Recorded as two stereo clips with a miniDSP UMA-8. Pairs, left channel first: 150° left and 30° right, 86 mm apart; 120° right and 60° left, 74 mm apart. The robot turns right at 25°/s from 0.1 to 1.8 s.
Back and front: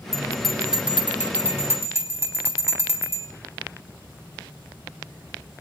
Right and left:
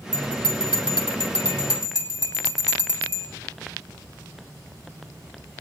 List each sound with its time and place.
0.1 s a bell: 125° right, 2.5 m; by 3.3 s 85° right, 2.5 m